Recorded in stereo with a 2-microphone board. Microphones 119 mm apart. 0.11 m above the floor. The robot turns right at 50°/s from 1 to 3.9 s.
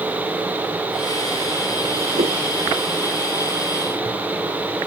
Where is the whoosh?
80° right.